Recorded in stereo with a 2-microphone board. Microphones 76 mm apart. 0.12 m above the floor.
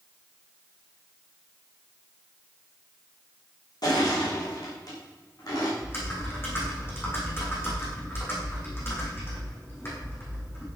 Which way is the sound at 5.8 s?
30° left (ahead or behind).